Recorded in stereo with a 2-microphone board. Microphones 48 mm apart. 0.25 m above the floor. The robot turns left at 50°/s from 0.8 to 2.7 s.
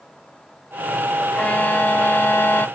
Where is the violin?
140° left; by 2.7 s 75° left.